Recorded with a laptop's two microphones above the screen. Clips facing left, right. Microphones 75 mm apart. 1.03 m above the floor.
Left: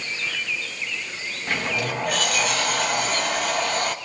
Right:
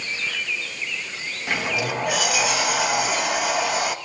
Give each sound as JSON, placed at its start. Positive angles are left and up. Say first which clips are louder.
{"t": 1.5, "sound": "a sliding door", "louder": "right 1 dB", "side_deg": -5, "distance_m": 1.2}